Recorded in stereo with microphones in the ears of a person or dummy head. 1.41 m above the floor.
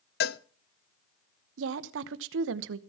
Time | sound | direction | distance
0.2 | a cowbell | 55° left (ahead or behind) | 0.5 m
1.6 | a woman speaking | 75° right (ahead or behind) | 0.9 m